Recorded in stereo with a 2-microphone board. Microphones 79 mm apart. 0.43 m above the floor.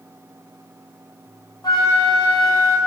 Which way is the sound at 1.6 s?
65° left (ahead or behind).